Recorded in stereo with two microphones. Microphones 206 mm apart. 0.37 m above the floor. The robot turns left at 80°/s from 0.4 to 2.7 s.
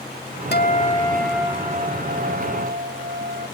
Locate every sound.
0.5 s a guitar: 65° left; by 3.5 s 110° right